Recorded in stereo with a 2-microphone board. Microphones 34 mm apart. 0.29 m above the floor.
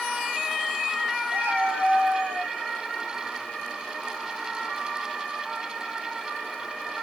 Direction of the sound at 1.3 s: 80° right.